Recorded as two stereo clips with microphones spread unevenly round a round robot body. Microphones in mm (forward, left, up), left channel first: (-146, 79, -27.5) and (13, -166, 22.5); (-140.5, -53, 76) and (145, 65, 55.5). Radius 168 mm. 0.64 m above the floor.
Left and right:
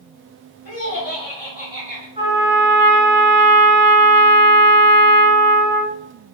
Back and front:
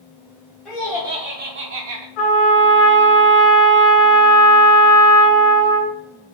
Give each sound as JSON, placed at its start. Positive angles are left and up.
{"t": 0.7, "sound": "laughter", "azimuth_deg": 110, "distance_m": 0.9}
{"t": 2.2, "sound": "a trumpet", "azimuth_deg": -125, "distance_m": 1.4}